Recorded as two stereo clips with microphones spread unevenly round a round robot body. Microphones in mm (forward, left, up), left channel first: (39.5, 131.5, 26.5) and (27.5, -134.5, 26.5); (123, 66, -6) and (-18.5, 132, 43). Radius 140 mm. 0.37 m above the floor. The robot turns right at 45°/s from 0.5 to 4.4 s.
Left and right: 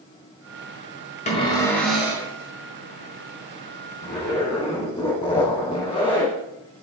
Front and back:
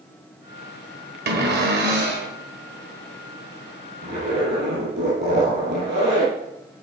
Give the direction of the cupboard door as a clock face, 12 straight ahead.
7 o'clock.